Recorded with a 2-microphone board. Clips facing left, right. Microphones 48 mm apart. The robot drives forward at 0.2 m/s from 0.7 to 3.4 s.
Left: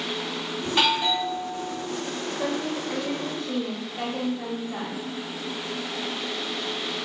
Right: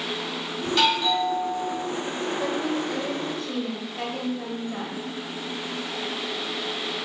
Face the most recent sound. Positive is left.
turn(degrees=5)  # may be behind; listen again after turning